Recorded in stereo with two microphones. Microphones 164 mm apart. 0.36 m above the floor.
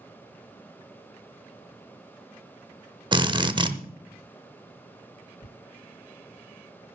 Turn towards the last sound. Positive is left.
turn(degrees=50)  # may be behind; listen again after turning